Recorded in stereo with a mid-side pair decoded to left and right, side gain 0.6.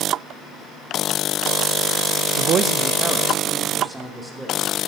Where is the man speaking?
65° right, 0.5 m; by 4.8 s 10° right, 3.5 m.